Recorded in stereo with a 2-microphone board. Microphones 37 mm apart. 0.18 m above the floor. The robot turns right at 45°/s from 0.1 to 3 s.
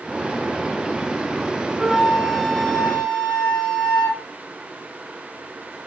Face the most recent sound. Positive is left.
turn(degrees=50)